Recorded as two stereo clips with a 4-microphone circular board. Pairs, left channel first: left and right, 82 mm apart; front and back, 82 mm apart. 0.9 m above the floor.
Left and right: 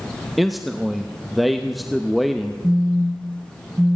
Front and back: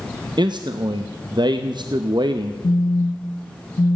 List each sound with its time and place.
0.4 s a man speaking: straight behind, 0.5 m
2.6 s a phone buzzing: 15° right, 0.6 m